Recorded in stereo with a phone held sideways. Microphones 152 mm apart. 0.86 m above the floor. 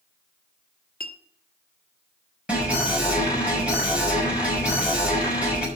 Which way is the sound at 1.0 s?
65° left (ahead or behind).